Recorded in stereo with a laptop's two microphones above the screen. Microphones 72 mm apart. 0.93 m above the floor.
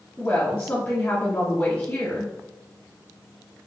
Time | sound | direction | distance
0.2 | a woman speaking | 30° left (ahead or behind) | 1.9 m